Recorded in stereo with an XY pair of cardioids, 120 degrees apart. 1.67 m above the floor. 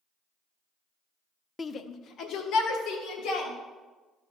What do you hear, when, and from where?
1.6 s a shout: 20° left, 0.6 m; by 3.5 s 70° left, 3.5 m